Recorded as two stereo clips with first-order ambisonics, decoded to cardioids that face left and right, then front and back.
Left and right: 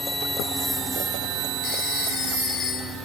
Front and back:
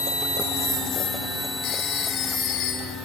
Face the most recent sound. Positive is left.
turn(degrees=40)